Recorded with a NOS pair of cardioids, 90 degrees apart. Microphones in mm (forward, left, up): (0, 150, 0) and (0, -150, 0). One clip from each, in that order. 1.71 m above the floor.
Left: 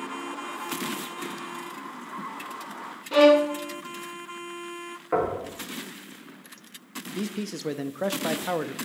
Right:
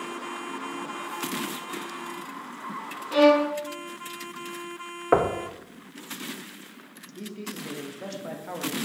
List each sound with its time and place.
3.1 s a violin: 15° left, 0.5 m
5.1 s knocking: 55° right, 0.9 m
7.2 s a man speaking: 50° left, 0.6 m